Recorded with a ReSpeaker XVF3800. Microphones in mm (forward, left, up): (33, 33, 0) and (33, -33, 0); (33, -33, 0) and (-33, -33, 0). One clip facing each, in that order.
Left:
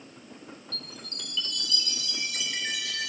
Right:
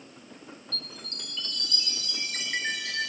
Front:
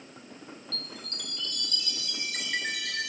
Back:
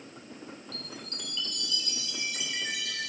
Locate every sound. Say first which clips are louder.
0.7 s a chime: even, even; 35° right, 0.8 m